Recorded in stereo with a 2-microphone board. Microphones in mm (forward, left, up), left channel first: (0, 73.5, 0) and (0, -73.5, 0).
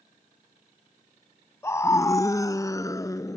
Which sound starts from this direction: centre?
A scream, at 1.6 s.